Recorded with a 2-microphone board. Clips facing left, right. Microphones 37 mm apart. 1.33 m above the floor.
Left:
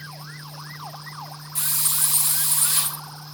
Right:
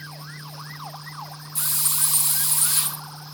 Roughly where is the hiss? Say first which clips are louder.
Left 1 dB; left.